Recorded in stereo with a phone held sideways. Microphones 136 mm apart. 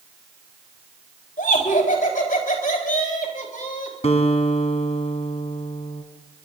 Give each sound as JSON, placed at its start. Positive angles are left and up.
{"t": 1.4, "sound": "laughter", "side_deg": 80, "distance_m": 5.0}
{"t": 4.0, "sound": "a guitar", "side_deg": 55, "distance_m": 1.9}